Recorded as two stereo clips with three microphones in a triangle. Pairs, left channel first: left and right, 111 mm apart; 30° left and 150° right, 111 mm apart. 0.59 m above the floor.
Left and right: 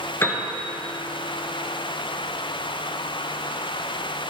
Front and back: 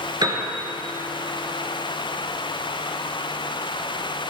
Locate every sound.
0.2 s a piano: 160° left, 1.9 m